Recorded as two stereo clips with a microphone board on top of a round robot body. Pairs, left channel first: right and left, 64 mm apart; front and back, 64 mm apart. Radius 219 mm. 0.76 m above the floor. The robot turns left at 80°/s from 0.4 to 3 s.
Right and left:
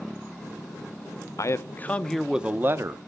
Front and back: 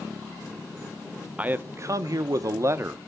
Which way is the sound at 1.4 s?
115° right.